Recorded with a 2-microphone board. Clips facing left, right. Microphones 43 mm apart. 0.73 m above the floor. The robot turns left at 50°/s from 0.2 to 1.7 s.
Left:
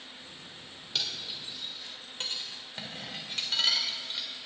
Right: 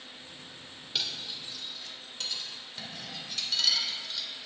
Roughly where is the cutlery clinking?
Centre.